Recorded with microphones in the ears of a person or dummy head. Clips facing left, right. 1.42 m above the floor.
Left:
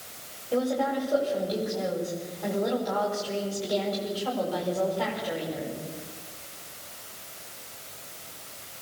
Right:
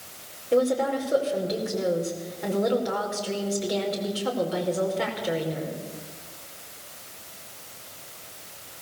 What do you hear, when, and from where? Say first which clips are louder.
0.5 s a woman speaking: right 4 dB; 30° right (ahead or behind), 5.5 m